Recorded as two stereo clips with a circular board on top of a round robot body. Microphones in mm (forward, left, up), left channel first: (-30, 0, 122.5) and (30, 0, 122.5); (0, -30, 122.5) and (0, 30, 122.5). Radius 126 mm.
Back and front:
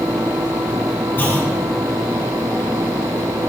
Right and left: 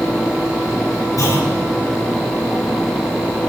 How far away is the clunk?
About 5 m.